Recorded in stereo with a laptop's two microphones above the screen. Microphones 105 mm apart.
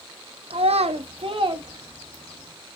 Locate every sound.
0.5 s a child speaking: 65° right (ahead or behind), 0.5 m; by 2.5 s 40° right (ahead or behind), 1.3 m